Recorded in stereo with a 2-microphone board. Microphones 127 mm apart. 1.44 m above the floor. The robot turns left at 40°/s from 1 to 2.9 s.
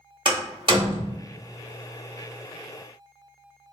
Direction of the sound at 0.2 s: 40° right (ahead or behind).